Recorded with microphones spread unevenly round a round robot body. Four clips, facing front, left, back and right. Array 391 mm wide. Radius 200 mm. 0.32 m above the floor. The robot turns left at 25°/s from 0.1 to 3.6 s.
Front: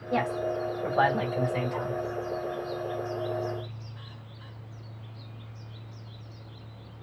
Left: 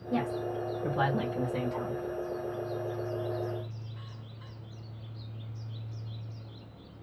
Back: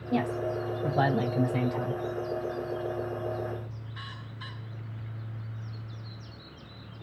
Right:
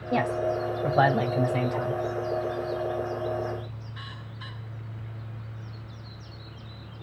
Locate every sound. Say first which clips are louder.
0.1 s a woman speaking: right 6 dB, front 1 dB; 100° right, 1.4 m; by 2.0 s 150° right, 1.4 m